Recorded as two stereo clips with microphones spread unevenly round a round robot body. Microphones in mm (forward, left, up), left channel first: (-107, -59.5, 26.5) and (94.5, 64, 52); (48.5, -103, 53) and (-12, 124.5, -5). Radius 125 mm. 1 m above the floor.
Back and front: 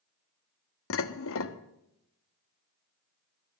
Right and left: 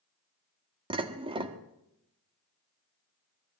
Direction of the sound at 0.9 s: 175° left.